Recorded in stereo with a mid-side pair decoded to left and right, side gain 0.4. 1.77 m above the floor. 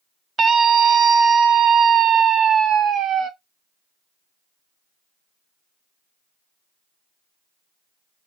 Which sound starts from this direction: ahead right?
A scream, at 0.4 s.